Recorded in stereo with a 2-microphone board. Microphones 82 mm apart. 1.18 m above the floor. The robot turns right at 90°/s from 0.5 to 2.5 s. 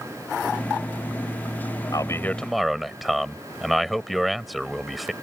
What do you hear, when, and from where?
1.9 s a man speaking: 125° left; by 5.1 s straight behind